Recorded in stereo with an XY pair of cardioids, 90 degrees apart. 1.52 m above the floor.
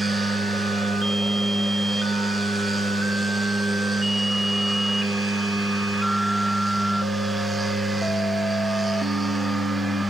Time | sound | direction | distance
0.0 | a machine running | 15° right | 1.3 m